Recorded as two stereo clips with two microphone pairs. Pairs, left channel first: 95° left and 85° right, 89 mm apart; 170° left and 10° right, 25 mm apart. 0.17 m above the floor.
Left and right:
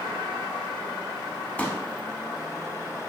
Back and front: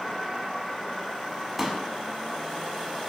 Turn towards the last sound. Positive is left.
turn(degrees=50)